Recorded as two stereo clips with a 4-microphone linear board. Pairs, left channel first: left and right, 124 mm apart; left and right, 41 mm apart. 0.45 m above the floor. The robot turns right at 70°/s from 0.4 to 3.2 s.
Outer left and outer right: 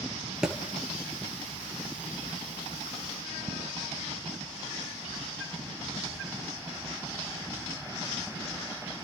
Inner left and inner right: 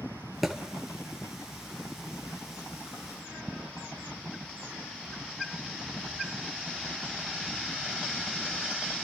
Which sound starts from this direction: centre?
A thud, at 0.4 s.